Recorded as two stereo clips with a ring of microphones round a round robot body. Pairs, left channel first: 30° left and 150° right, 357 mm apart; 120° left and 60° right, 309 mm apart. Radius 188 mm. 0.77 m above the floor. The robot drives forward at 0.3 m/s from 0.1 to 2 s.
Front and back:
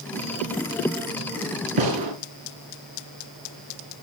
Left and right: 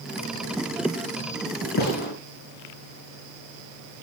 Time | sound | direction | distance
1.8 | a gunshot | 175° right | 5 m